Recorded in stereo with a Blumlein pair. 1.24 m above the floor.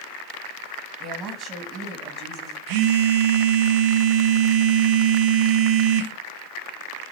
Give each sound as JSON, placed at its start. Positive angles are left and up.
{"t": 1.0, "sound": "a woman speaking", "azimuth_deg": -30, "distance_m": 1.6}
{"t": 2.7, "sound": "a phone buzzing", "azimuth_deg": -45, "distance_m": 0.7}